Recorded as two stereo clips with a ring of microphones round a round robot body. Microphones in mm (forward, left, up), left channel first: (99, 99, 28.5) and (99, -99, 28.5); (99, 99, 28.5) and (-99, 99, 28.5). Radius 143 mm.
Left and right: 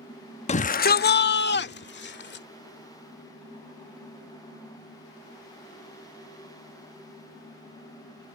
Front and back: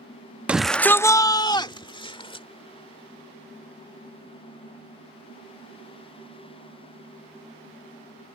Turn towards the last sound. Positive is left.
turn(degrees=65)